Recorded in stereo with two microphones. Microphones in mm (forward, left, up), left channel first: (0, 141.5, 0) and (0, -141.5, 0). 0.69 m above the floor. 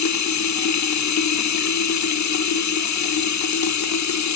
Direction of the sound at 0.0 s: 70° left (ahead or behind).